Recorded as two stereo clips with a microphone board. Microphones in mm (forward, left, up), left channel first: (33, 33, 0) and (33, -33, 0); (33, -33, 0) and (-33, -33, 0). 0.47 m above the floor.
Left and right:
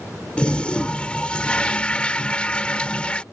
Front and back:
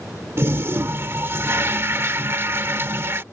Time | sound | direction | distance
0.4 | a toilet flushing | 155° left | ?